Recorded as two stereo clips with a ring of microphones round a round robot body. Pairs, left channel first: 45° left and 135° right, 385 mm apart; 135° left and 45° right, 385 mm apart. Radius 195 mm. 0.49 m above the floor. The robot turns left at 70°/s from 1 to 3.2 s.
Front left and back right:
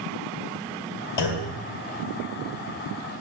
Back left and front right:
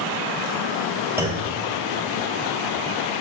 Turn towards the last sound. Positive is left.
turn(degrees=-105)